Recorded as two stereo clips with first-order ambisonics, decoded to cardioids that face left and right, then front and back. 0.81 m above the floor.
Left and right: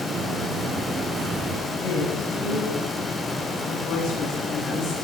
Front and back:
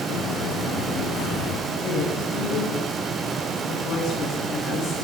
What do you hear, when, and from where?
0.1 s footsteps: 30° right, 4 m; by 1.6 s 35° right, 3.5 m
1.7 s a woman speaking: 55° left, 6.5 m